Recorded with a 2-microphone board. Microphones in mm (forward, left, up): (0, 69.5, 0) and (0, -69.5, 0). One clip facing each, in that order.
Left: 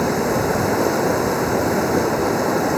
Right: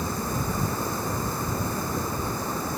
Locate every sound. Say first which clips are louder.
0.0 s running water: left 11 dB; 85° left